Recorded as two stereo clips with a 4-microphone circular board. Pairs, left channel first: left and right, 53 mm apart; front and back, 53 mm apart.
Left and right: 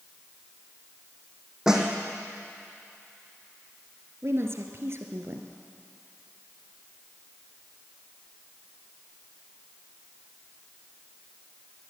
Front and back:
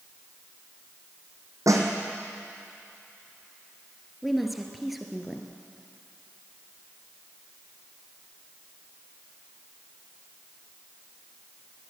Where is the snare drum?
170° right, 2.5 m.